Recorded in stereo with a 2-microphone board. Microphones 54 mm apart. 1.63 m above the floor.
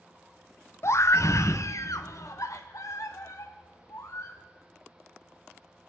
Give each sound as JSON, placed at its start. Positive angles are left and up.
{"t": 0.8, "sound": "a scream", "side_deg": 55, "distance_m": 0.6}